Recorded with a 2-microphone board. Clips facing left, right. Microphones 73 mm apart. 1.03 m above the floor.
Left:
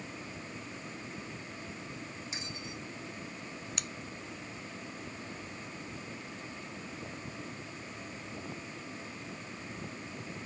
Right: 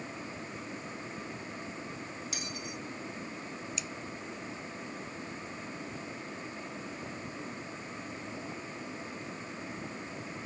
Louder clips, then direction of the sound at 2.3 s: Right 2 dB; 30° left (ahead or behind).